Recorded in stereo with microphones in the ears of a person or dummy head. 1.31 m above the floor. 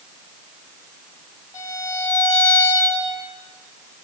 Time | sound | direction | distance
1.5 | a violin | 20° left (ahead or behind) | 7.5 m